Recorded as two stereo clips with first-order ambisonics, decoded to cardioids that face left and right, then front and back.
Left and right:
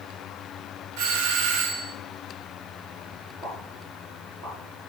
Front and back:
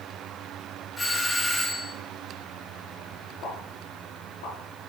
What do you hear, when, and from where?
1.0 s a doorbell: 85° right, 1.8 m
3.4 s a pop: 20° right, 5.5 m